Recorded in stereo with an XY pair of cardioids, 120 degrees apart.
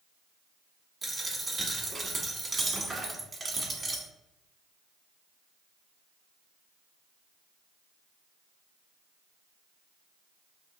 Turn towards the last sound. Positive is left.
turn(degrees=-15)